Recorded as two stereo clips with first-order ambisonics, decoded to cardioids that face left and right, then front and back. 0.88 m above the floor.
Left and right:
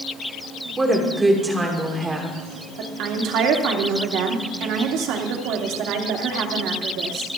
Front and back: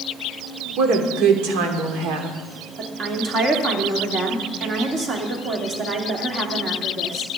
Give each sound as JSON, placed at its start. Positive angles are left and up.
{"t": 0.8, "sound": "a woman speaking", "azimuth_deg": -165, "distance_m": 2.5}
{"t": 2.8, "sound": "a woman speaking", "azimuth_deg": -120, "distance_m": 2.0}